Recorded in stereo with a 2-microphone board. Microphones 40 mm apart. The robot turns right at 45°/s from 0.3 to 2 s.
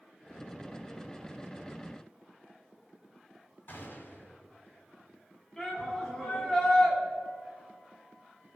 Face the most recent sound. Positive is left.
turn(degrees=10)  # may be behind; listen again after turning